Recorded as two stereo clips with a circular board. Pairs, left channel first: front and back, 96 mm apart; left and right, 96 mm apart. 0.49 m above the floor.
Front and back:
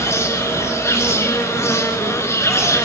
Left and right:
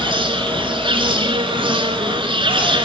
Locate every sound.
0.0 s an insect: 60° right, 2.5 m